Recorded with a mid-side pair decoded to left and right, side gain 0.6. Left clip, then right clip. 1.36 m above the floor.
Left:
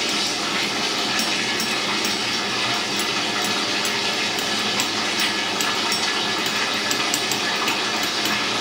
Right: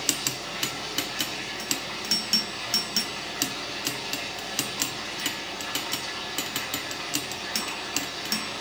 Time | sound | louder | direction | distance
0.0 | running water | left 7 dB | 60° left | 2.5 m